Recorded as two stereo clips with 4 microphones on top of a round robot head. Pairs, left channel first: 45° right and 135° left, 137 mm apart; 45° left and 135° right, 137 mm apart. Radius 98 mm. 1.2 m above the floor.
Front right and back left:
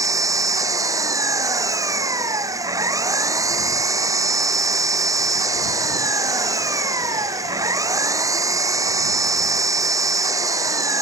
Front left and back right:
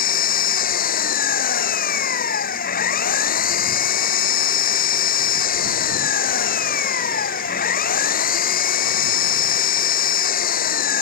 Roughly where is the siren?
No siren in this recording.